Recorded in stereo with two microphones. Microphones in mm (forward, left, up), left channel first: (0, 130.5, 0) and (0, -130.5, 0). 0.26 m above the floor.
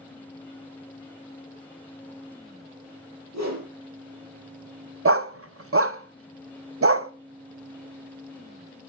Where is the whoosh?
80° right, 4.5 m.